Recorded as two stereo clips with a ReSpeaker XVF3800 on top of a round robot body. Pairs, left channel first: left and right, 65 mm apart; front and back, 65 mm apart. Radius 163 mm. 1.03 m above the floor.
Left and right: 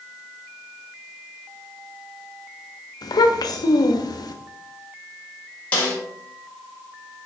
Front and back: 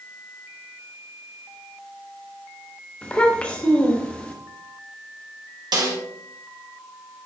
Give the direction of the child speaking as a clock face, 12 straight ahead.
10 o'clock.